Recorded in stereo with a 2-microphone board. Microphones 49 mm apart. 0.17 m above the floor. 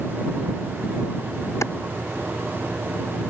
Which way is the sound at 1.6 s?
80° left.